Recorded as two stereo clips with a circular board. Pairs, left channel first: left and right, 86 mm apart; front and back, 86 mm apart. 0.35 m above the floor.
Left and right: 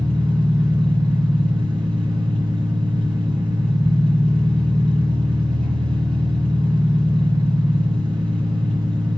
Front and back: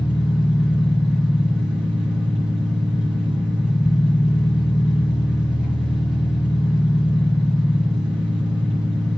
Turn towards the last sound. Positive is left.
turn(degrees=-95)